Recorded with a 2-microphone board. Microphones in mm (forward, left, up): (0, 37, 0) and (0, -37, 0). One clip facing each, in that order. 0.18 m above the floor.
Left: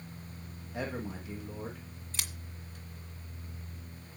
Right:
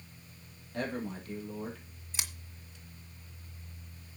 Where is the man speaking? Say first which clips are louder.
Right 1 dB; 10° left (ahead or behind), 6 m.